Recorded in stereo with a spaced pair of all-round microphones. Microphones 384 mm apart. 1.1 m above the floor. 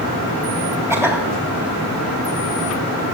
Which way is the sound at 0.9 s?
5° right (ahead or behind).